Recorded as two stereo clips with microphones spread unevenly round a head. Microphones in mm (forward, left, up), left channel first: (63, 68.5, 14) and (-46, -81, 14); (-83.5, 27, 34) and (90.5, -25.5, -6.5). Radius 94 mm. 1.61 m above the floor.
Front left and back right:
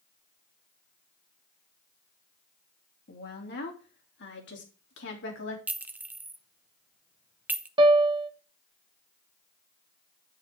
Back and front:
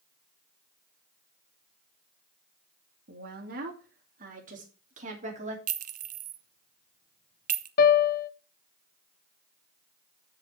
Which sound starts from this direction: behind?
A piano, at 7.8 s.